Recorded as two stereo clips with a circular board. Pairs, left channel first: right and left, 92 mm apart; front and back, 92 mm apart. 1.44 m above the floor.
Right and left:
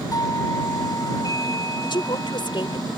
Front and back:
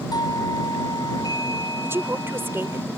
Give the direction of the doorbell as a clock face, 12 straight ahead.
1 o'clock.